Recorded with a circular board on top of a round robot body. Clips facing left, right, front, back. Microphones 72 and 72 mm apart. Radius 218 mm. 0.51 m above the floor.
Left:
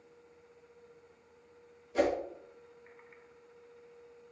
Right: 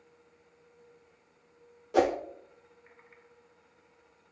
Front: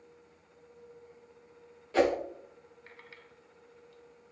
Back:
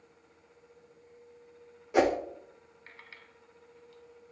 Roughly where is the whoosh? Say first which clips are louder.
Right 4 dB, back 1 dB; right.